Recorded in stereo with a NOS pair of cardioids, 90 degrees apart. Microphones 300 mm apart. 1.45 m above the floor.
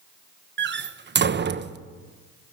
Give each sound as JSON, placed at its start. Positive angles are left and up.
{"t": 0.6, "sound": "a door slam", "azimuth_deg": -35, "distance_m": 1.1}